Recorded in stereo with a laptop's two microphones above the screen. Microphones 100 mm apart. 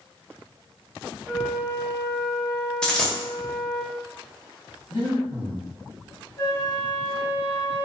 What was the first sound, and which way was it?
A flute, 10° left (ahead or behind).